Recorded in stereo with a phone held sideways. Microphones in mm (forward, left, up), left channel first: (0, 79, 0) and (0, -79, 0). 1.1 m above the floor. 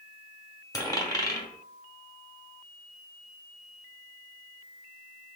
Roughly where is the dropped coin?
Left.